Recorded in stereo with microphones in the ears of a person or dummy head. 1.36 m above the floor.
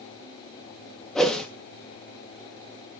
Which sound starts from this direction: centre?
A whoosh, at 1.1 s.